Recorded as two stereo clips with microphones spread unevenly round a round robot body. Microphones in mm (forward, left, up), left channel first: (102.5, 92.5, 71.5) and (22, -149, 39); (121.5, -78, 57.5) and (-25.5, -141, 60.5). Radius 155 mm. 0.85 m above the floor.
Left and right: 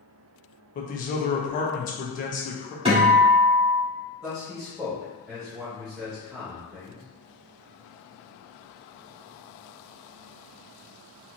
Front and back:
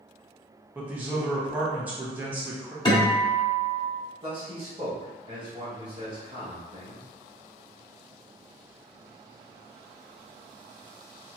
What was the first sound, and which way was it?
A man speaking, 125° left.